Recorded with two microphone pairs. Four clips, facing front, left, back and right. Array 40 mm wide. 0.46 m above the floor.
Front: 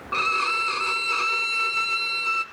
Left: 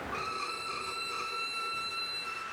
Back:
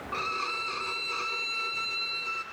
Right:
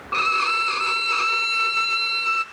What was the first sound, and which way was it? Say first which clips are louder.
A violin: right 18 dB, front 9 dB; 65° right.